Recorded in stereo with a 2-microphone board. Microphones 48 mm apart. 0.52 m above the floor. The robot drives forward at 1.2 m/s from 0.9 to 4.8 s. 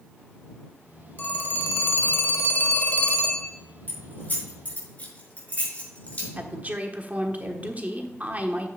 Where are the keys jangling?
40° left (ahead or behind), 5 m; by 6.3 s 35° left (ahead or behind), 6 m.